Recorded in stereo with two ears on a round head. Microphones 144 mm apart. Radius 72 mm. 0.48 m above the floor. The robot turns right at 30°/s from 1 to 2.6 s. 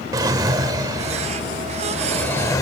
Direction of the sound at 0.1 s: 25° right.